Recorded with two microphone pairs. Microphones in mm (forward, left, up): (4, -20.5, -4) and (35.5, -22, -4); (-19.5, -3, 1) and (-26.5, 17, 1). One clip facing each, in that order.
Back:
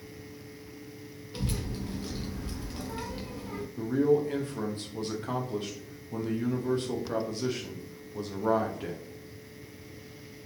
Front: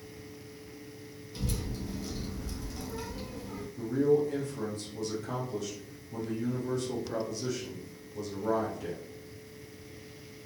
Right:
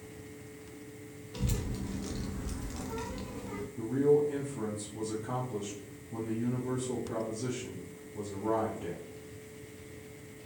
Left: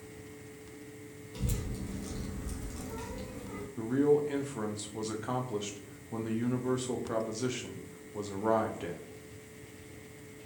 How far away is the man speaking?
About 0.6 m.